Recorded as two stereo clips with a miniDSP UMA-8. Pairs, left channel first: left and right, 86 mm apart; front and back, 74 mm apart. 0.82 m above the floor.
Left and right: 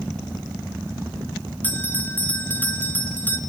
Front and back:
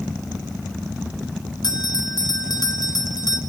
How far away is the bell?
About 2 m.